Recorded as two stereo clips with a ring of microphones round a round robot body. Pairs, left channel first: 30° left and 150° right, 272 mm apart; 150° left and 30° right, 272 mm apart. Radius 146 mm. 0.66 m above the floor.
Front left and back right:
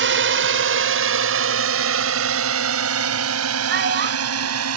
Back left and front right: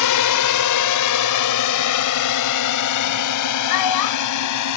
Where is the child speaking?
155° left.